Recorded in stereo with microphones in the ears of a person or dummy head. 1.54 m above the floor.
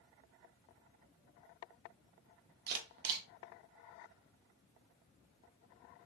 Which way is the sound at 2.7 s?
60° right (ahead or behind).